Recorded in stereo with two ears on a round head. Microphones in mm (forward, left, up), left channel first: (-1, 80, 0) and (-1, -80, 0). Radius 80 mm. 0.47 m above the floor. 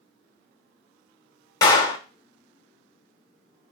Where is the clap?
20° left (ahead or behind), 1.1 m.